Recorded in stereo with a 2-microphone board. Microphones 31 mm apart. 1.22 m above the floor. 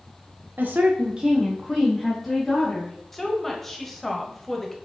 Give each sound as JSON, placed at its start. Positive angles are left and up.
{"t": 0.6, "sound": "a woman speaking", "side_deg": -80, "distance_m": 0.5}
{"t": 3.1, "sound": "a woman speaking", "side_deg": 5, "distance_m": 0.9}